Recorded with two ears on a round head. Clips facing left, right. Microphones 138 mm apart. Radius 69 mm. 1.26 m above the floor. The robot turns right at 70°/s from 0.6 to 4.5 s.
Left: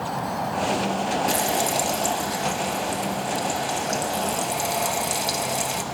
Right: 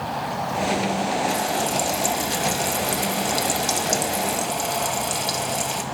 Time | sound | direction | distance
1.3 | frying | 140° left | 1.5 m